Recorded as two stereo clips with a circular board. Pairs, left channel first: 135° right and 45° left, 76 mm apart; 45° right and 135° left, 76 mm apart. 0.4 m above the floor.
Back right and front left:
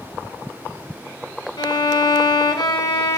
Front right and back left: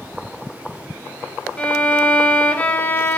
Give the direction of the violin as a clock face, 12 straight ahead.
4 o'clock.